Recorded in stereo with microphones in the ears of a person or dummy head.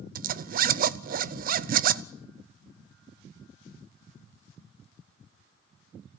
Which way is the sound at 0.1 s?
45° right (ahead or behind).